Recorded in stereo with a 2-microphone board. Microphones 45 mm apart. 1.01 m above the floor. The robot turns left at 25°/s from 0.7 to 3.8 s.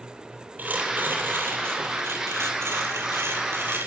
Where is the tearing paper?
40° right, 6.5 m; by 3.9 s 115° right, 6.5 m.